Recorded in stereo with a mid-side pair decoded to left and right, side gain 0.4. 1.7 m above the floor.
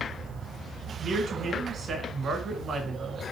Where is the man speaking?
60° right, 2 m.